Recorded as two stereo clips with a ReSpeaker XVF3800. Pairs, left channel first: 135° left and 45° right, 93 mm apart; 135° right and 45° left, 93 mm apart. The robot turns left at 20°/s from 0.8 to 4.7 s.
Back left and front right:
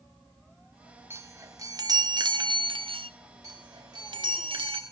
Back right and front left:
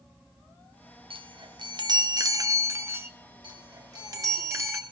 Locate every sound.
1.1 s a chime: 20° left, 1.3 m; by 3.1 s 20° right, 1.3 m
3.4 s a chime: 5° left, 4 m; by 4.8 s 20° right, 4 m